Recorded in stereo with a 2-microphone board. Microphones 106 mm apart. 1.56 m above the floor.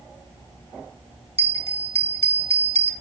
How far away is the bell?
About 1.5 m.